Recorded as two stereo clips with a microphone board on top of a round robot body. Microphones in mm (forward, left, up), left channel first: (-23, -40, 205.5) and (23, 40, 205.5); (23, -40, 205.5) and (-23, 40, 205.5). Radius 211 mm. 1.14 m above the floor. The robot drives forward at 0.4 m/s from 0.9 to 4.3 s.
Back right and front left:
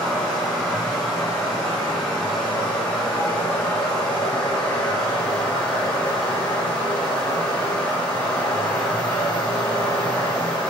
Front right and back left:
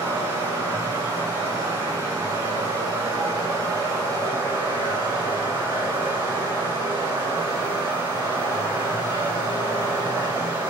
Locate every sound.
0.0 s running water: 155° left, 4 m; by 10.7 s 160° left, 5 m